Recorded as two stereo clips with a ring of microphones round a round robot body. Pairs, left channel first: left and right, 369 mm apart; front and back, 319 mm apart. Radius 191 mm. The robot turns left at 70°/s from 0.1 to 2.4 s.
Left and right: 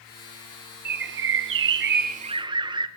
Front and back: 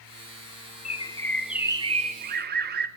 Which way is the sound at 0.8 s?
50° right.